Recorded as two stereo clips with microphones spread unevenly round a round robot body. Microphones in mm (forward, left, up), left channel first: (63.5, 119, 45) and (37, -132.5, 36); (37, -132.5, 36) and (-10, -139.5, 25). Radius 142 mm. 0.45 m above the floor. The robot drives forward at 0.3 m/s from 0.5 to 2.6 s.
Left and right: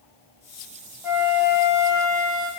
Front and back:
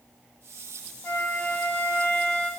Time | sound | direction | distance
1.0 | a flute | 15° right | 0.8 m